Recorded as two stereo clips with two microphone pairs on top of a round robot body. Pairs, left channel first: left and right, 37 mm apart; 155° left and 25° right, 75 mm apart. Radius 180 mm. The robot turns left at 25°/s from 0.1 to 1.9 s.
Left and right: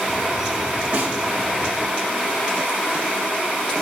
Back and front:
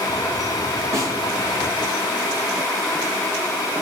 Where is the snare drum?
70° right, 4 m; by 1.1 s 75° right, 4 m.